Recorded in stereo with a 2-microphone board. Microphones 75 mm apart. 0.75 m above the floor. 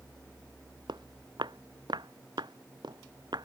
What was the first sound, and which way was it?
Footsteps, 85° right.